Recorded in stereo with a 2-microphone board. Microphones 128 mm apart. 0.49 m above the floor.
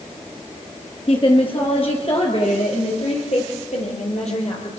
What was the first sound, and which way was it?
A woman speaking, 45° left (ahead or behind).